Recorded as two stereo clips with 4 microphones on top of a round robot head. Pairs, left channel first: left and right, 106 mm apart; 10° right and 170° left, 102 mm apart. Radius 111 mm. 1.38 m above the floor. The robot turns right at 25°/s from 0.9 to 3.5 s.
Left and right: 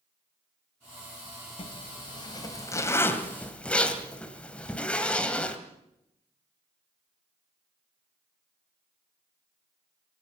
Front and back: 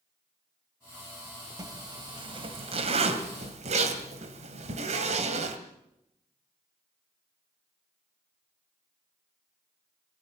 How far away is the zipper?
About 2 m.